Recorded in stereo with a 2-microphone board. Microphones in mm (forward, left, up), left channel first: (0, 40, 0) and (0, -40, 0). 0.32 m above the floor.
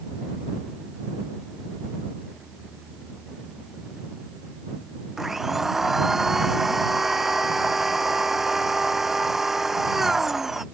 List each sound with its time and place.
5.2 s a blender: 5° right (ahead or behind)